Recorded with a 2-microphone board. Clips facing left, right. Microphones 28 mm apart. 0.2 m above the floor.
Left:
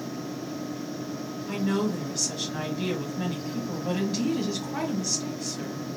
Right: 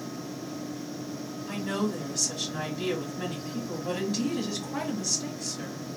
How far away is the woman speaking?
About 1.2 m.